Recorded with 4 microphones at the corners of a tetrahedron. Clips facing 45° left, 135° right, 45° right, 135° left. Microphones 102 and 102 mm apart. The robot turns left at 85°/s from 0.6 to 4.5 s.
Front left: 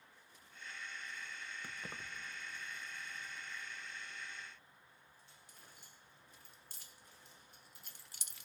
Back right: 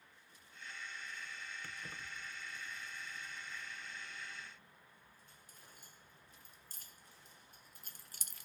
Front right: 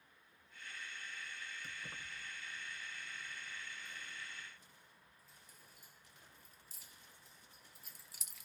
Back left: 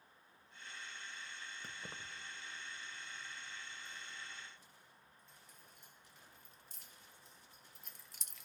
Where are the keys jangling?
115° left, 0.6 m; by 8.5 s 130° right, 0.6 m.